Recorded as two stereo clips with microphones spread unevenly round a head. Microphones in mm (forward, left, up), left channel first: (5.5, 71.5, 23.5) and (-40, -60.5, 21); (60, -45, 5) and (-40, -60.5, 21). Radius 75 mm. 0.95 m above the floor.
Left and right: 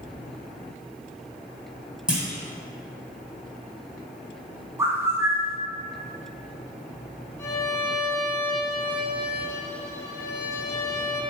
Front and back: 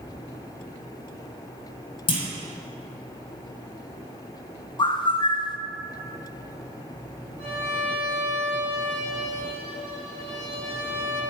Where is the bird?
35° right, 0.6 m.